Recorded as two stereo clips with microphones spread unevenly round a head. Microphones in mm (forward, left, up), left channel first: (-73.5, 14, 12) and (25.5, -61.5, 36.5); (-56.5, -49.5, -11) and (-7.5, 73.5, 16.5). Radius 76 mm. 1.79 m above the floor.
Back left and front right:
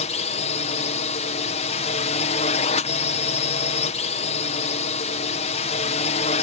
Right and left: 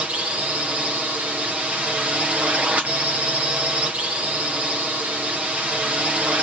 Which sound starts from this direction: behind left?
A drone, at 0.0 s.